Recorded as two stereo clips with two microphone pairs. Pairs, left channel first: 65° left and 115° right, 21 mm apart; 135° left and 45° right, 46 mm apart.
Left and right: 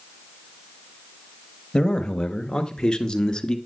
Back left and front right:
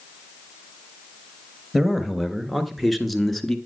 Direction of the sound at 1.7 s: 35° left.